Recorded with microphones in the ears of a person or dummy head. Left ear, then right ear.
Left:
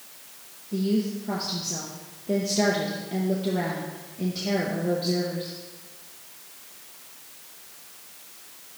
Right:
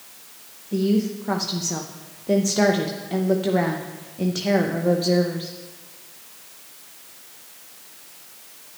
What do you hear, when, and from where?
0.7 s a woman speaking: 50° right (ahead or behind), 0.7 m